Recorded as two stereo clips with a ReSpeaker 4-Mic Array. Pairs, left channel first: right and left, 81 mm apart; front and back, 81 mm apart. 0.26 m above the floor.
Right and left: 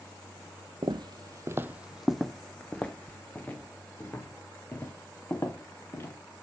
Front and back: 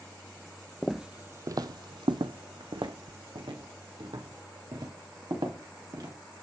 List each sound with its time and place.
0.8 s footsteps: 85° left, 0.6 m; by 6.1 s 150° right, 3.5 m